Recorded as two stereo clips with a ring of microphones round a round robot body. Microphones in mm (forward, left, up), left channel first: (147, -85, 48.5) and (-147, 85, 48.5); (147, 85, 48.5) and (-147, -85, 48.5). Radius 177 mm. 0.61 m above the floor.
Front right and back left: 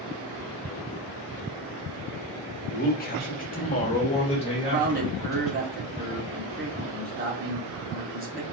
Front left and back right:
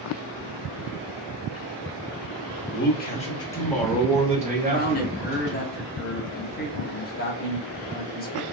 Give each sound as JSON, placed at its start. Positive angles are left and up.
{"t": 2.7, "sound": "a man speaking", "azimuth_deg": 15, "distance_m": 1.2}
{"t": 4.6, "sound": "a man speaking", "azimuth_deg": 90, "distance_m": 1.1}